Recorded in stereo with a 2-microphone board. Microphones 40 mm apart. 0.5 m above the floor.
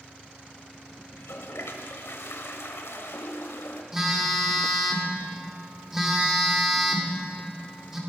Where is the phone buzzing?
10° right (ahead or behind), 1.5 m.